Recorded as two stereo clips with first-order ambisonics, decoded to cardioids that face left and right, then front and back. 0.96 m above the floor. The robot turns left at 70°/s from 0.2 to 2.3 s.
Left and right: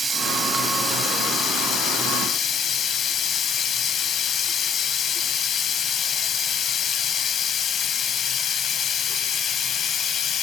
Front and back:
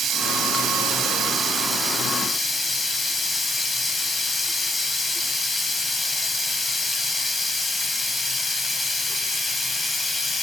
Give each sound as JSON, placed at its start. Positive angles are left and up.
{"t": 0.0, "sound": "running water", "azimuth_deg": -150, "distance_m": 0.9}